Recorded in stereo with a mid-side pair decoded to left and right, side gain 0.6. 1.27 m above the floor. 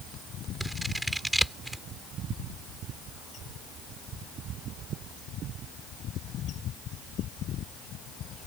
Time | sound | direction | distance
0.6 | scissors | 5° right | ?